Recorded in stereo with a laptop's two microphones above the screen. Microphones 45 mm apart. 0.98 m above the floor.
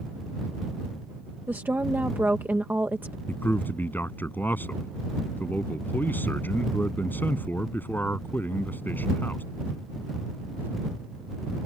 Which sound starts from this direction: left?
A man speaking, at 3.3 s.